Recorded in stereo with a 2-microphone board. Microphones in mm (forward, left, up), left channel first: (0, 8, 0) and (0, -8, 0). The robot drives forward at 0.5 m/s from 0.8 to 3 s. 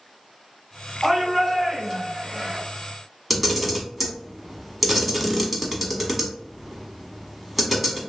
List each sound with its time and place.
1.0 s a shout: centre (ahead or behind), 1.4 m
3.3 s a camera shutter: 5° right (ahead or behind), 0.9 m